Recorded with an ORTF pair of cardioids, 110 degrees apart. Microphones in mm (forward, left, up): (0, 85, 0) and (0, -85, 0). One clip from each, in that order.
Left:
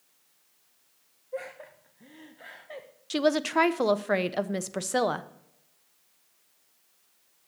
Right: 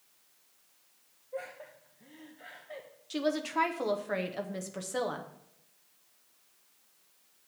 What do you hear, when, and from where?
1.3 s laughter: 25° left, 1.0 m
3.1 s a woman speaking: 45° left, 0.7 m